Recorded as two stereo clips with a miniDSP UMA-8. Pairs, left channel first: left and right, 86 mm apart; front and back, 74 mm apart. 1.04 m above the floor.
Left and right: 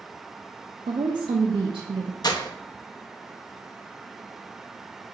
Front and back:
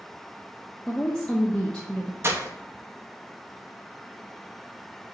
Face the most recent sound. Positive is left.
turn(degrees=125)